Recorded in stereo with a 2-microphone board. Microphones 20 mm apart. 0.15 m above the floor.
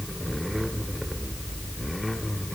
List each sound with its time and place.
Only background noise.